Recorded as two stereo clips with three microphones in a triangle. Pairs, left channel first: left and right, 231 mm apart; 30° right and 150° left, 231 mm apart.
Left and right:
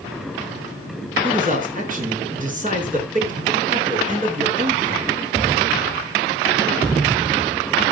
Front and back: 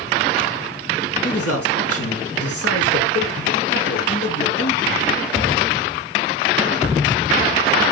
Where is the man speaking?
35° right, 5 m.